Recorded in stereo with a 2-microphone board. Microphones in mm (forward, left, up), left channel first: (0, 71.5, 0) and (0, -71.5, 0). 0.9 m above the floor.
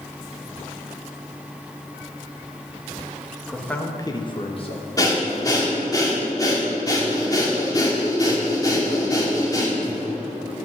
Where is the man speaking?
5° left (ahead or behind), 1.3 m; by 4.9 s 40° left (ahead or behind), 1.4 m.